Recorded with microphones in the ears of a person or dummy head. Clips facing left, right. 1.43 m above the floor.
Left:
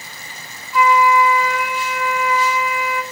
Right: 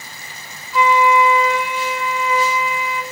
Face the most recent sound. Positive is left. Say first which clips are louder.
# even
turn(degrees=-25)  # may be behind; listen again after turning